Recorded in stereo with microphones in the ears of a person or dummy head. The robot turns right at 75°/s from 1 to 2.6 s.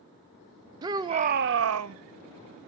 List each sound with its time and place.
0.8 s a shout: 160° right, 0.8 m; by 2.0 s 85° right, 0.8 m